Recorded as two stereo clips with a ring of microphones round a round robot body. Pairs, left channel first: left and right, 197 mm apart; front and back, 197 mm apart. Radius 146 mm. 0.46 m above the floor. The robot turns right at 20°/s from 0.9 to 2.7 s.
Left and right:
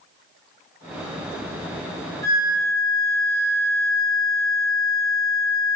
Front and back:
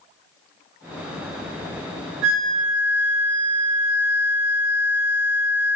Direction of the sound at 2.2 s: 170° left.